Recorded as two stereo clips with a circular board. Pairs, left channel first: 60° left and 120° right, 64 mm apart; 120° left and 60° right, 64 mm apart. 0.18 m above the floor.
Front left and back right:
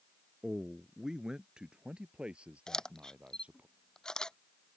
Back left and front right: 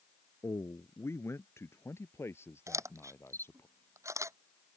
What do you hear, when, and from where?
0.4 s a man speaking: 155° left; by 3.7 s 170° left
2.7 s a camera shutter: 20° right